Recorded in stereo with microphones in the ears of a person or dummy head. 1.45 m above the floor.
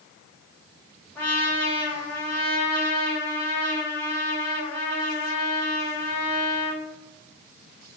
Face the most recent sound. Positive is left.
turn(degrees=10)  # may be behind; listen again after turning